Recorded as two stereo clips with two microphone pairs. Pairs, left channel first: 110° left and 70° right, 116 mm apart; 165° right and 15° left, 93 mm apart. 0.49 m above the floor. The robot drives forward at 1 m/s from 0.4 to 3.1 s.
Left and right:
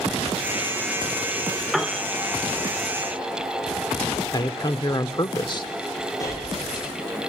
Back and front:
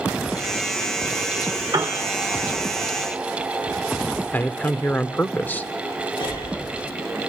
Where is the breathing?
175° left, 9 m.